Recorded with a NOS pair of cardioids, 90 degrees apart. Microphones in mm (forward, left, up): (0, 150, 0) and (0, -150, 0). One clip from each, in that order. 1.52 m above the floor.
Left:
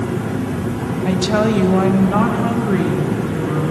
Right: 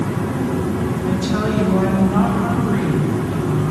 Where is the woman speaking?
60° left, 0.9 m; by 3.7 s 45° left, 3 m.